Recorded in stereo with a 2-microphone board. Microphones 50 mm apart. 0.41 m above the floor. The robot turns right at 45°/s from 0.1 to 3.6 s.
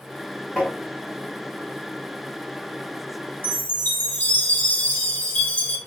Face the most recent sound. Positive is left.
turn(degrees=35)  # may be behind; listen again after turning